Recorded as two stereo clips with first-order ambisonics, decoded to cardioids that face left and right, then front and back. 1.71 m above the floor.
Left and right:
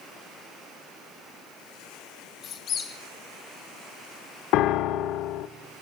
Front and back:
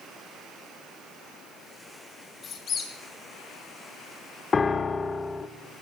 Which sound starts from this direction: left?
A piano, at 4.5 s.